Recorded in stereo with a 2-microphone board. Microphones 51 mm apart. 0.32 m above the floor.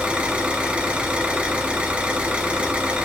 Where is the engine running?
25° right (ahead or behind), 1.7 m.